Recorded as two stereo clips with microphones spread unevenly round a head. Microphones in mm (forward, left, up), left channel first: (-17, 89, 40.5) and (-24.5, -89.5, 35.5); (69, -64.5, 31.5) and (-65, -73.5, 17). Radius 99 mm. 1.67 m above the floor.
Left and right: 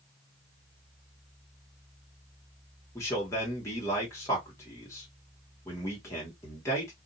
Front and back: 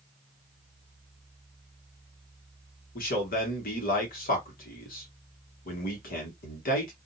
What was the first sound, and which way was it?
A man speaking, 10° left.